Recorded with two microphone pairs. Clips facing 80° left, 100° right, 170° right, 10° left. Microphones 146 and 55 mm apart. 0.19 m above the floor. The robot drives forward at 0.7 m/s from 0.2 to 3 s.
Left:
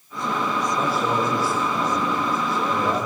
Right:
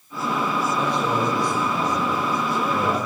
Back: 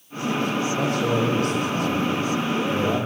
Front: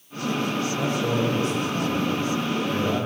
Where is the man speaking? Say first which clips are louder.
Left 1 dB, back 2 dB; 165° left, 7 m.